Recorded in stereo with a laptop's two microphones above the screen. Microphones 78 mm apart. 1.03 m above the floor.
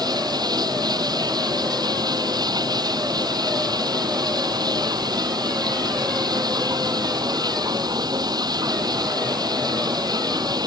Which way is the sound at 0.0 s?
60° right (ahead or behind).